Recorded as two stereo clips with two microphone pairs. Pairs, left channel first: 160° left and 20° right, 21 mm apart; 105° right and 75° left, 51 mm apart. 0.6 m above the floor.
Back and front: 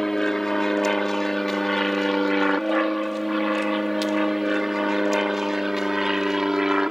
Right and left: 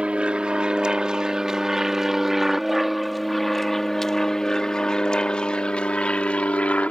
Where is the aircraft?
110° left; by 6.9 s 70° right.